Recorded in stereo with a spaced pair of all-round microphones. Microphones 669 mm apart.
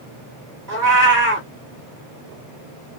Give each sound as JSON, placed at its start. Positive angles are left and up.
{"t": 0.7, "sound": "a cat meowing", "side_deg": -25, "distance_m": 1.4}